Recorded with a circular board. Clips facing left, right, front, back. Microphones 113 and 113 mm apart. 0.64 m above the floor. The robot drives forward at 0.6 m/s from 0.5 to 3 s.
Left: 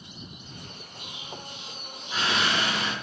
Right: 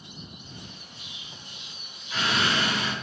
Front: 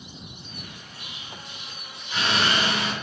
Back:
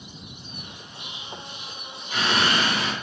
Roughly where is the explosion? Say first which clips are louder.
Left 7 dB, back 5 dB; behind left.